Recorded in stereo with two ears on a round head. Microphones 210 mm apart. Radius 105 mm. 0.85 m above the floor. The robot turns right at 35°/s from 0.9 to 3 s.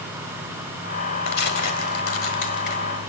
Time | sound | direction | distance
1.3 | tearing paper | 80° left | 1.7 m